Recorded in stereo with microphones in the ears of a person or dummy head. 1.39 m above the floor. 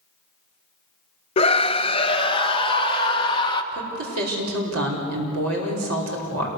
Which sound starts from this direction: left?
A scream, at 1.4 s.